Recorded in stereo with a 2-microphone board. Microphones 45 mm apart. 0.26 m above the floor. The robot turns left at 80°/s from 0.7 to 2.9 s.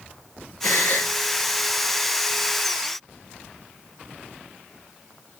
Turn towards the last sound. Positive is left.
turn(degrees=-115)